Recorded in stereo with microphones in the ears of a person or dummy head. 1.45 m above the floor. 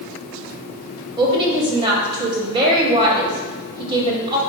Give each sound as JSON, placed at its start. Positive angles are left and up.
{"t": 1.2, "sound": "a woman speaking", "side_deg": -25, "distance_m": 0.7}